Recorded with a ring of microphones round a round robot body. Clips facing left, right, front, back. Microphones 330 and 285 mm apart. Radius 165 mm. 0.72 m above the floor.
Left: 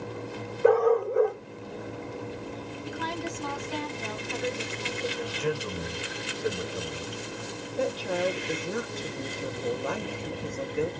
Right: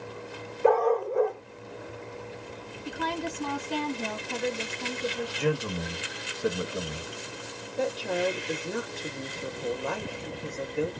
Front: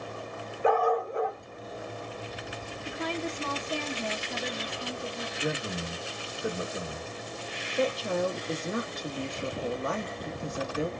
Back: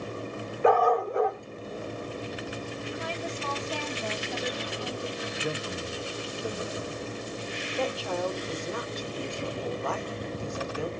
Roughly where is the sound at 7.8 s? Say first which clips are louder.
Even, front 3 dB; ahead.